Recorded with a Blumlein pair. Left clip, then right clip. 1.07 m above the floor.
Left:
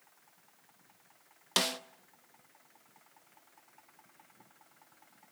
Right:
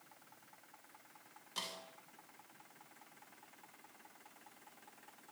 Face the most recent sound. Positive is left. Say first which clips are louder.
# left 13 dB
turn(degrees=40)